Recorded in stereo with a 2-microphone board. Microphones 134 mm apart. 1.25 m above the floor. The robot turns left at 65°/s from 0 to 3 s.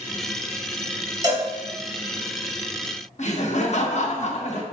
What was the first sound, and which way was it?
A cowbell, 30° right (ahead or behind).